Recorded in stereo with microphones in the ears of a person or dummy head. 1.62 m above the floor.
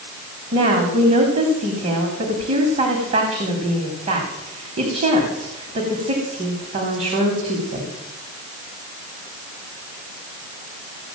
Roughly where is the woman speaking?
Right.